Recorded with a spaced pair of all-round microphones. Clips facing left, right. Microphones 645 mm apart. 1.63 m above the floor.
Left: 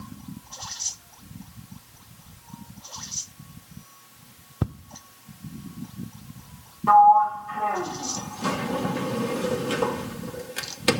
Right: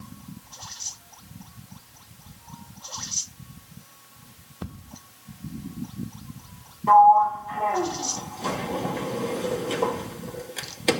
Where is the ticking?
85° left, 0.7 m.